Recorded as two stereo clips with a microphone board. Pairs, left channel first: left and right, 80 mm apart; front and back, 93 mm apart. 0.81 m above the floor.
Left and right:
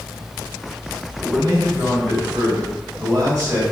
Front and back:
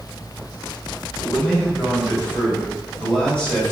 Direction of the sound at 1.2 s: 75° right.